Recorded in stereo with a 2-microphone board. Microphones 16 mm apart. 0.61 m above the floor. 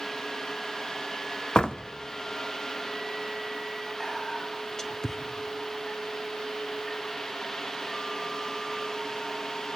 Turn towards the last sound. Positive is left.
turn(degrees=30)  # may be behind; listen again after turning